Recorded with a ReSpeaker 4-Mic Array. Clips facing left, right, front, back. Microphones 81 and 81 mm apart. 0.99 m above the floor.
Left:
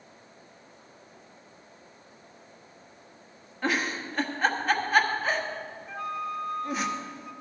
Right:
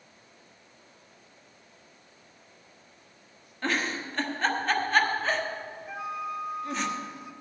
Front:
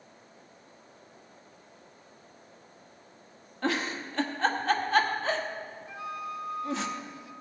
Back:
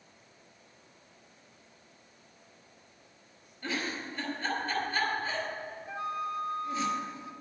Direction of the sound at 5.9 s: 165° right.